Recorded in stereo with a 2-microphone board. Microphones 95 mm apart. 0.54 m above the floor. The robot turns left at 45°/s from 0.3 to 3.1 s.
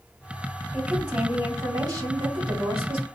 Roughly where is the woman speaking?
Ahead.